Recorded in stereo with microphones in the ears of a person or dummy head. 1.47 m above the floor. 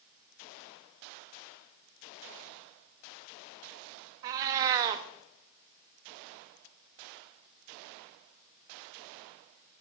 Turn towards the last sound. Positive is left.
turn(degrees=-20)  # may be behind; listen again after turning